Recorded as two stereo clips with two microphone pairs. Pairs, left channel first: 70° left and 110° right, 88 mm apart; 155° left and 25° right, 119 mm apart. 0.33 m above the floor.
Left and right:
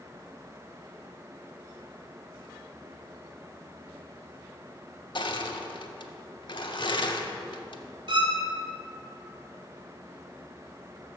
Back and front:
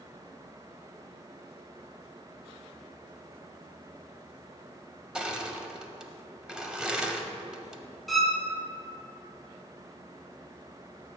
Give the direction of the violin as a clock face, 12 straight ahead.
4 o'clock.